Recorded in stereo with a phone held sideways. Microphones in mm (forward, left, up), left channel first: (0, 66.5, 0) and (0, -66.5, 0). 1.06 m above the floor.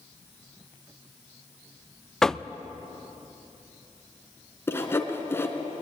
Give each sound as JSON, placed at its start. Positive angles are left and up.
{"t": 2.2, "sound": "knocking", "side_deg": 5, "distance_m": 0.5}
{"t": 4.7, "sound": "sawing", "side_deg": 20, "distance_m": 2.5}